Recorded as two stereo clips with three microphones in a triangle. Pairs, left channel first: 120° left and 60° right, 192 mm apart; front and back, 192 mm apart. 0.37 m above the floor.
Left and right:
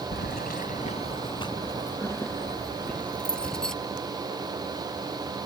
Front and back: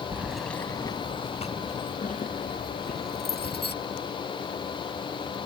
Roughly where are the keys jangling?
Left.